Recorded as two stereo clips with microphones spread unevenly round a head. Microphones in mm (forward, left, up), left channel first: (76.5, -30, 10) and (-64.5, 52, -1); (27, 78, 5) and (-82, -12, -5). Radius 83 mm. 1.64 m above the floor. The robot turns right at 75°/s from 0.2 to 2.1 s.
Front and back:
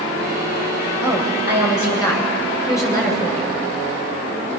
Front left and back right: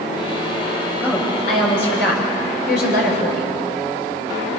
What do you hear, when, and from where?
1.0 s a woman speaking: 40° right, 8 m; by 3.6 s 40° left, 8 m